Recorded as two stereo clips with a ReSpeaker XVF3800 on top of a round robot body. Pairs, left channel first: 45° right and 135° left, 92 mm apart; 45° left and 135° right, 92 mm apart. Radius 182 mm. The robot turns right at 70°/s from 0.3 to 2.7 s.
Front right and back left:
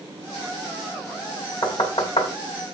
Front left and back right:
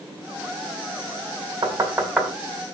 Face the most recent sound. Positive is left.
turn(degrees=-15)